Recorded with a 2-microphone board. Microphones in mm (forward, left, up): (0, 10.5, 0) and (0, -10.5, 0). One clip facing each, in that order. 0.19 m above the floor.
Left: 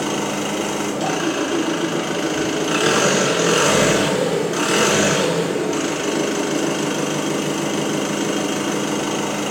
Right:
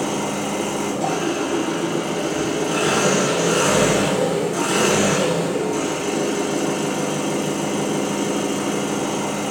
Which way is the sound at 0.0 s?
55° left (ahead or behind).